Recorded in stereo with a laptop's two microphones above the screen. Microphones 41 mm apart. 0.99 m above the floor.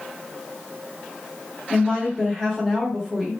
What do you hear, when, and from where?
1.7 s a woman speaking: 15° right (ahead or behind), 1.4 m